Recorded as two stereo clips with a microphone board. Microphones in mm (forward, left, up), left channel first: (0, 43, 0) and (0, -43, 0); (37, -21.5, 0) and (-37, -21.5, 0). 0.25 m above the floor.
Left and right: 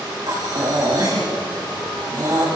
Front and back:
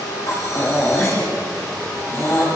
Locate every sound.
0.3 s breathing: 50° right, 8.5 m